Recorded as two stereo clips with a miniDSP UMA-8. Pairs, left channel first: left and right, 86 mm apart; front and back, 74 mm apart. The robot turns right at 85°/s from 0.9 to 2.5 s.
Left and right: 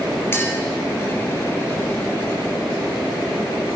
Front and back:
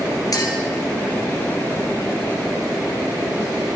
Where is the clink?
30° left, 2 m.